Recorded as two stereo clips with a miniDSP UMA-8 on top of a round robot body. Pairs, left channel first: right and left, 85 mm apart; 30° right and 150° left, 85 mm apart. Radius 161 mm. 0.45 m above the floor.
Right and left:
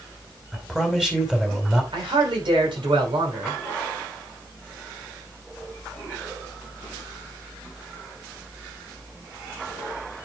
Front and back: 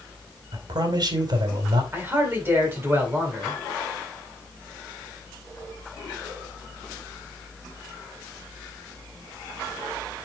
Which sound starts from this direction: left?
A man speaking, at 1.9 s.